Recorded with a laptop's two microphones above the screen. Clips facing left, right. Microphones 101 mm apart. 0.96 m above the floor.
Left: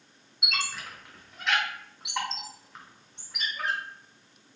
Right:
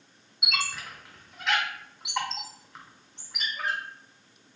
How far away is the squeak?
About 0.7 m.